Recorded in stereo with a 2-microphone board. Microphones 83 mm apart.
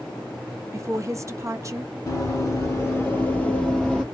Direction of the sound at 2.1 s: 40° left (ahead or behind).